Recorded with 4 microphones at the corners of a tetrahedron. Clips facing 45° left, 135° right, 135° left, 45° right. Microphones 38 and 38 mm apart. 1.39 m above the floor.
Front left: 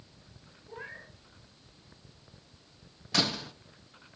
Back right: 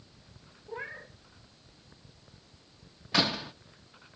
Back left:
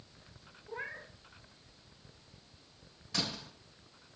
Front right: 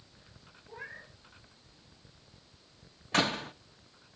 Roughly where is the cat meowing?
Behind.